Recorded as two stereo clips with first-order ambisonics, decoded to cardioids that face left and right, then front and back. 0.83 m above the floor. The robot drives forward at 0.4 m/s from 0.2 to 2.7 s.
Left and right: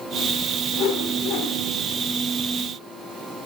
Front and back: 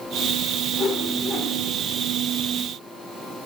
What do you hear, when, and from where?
0.7 s a whoosh: 60° left, 1.2 m; by 1.6 s 80° left, 1.0 m